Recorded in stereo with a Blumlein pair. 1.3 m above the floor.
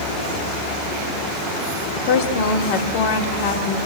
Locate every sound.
1.9 s a woman speaking: 45° left, 3 m